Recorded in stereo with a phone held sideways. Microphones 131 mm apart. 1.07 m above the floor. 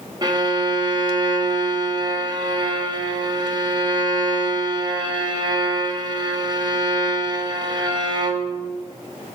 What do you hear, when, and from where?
0.2 s a violin: 35° right (ahead or behind), 1.3 m